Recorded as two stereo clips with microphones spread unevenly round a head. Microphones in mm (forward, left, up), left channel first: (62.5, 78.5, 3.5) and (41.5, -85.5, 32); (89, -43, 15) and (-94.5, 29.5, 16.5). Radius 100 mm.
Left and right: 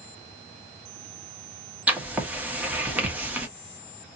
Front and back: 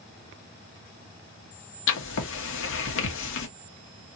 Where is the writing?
15° right, 1.4 m.